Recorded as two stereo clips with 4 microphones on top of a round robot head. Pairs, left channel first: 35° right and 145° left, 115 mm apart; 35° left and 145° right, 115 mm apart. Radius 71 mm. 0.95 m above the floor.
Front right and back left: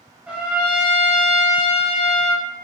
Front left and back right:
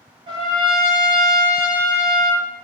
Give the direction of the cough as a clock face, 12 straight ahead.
I don't hear a cough.